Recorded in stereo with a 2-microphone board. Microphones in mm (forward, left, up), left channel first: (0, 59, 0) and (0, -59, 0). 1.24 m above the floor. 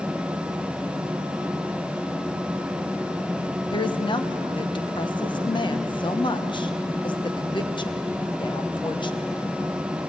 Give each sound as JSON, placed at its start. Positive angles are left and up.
{"t": 3.7, "sound": "a woman speaking", "side_deg": 40, "distance_m": 1.2}